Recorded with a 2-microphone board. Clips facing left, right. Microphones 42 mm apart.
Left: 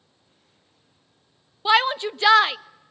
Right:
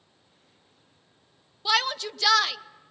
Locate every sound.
1.6 s a shout: 25° left (ahead or behind), 0.5 m